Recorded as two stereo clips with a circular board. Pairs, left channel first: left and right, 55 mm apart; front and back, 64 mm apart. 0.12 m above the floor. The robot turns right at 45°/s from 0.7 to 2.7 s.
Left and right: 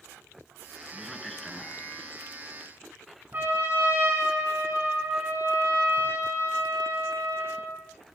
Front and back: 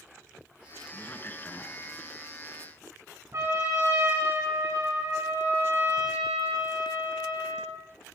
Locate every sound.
0.9 s a man speaking: 10° right, 1.4 m; by 2.1 s 45° left, 1.4 m
3.3 s a trumpet: 140° right, 9.5 m